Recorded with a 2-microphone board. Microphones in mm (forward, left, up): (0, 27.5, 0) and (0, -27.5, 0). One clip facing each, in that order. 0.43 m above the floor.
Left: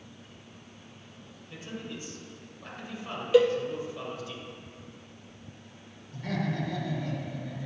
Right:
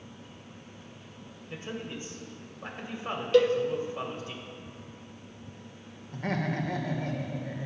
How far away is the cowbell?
About 0.5 m.